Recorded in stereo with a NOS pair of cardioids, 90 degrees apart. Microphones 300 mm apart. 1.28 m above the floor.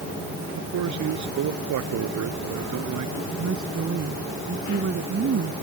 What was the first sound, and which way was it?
A man speaking, 70° right.